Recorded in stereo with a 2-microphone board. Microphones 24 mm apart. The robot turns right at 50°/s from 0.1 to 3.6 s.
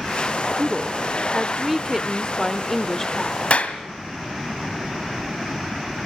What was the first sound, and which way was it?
A woman speaking, 20° right (ahead or behind).